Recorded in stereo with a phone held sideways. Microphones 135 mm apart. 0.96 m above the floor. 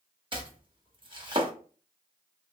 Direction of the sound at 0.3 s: 35° right (ahead or behind).